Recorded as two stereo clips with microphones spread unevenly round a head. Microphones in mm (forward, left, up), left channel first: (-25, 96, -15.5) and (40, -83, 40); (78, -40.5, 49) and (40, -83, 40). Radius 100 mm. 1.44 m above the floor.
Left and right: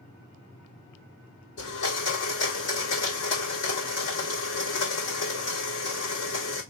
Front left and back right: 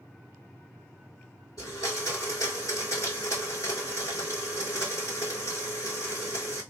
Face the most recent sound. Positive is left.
turn(degrees=105)